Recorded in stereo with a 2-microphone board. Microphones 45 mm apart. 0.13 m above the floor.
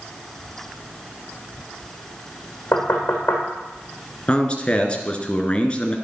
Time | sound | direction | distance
2.7 | knocking | 60° left (ahead or behind) | 5.5 m
4.3 | a man speaking | 25° left (ahead or behind) | 2 m